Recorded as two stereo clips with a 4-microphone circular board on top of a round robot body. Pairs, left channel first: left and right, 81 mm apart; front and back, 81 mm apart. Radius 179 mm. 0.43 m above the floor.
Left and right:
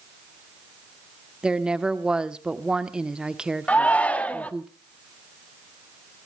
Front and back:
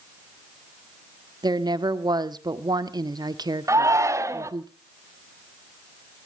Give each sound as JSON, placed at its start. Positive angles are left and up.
{"t": 1.4, "sound": "a woman speaking", "azimuth_deg": -170, "distance_m": 1.5}
{"t": 3.7, "sound": "a shout", "azimuth_deg": 155, "distance_m": 1.7}